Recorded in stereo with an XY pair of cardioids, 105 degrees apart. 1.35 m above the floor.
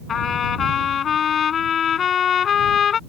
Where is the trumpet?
50° left.